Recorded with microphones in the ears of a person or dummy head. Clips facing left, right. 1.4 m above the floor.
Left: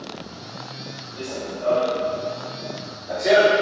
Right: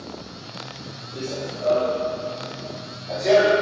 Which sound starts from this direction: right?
Running footsteps, at 1.1 s.